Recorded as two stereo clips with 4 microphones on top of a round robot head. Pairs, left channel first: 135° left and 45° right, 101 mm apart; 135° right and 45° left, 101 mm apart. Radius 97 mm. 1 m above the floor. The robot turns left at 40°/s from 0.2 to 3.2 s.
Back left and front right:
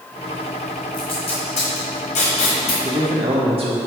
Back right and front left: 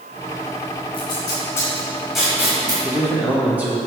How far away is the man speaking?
About 2 m.